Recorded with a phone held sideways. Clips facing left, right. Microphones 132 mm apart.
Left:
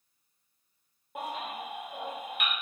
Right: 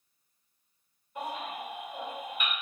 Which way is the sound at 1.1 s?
80° left.